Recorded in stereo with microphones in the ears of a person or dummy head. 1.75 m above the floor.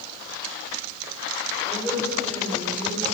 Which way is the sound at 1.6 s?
20° left (ahead or behind).